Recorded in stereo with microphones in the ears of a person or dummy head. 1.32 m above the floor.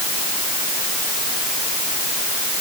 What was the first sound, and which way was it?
Only background noise.